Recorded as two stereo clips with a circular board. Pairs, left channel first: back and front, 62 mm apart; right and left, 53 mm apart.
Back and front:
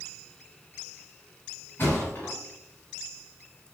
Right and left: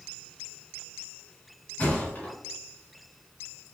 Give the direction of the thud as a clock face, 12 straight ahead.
5 o'clock.